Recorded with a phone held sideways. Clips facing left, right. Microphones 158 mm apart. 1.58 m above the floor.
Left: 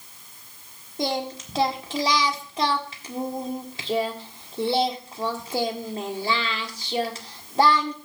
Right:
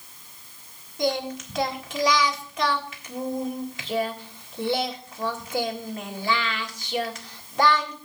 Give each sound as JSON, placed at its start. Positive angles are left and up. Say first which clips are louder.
{"t": 1.0, "sound": "singing", "louder": "right 1 dB", "side_deg": 30, "distance_m": 1.6}